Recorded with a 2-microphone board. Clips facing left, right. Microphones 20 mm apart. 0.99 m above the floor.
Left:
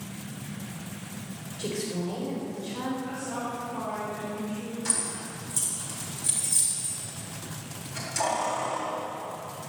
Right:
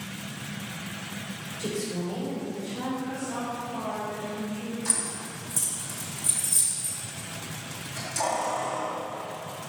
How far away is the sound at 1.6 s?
About 4 m.